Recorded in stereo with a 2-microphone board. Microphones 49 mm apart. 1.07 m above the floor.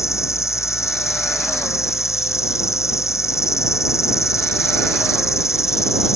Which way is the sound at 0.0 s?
85° left.